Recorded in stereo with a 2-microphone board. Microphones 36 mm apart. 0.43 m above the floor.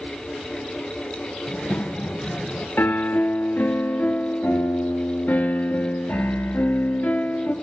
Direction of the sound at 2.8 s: 80° left.